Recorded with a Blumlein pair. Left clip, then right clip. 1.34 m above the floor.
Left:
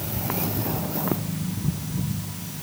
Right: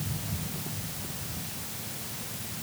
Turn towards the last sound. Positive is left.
No sound to turn to.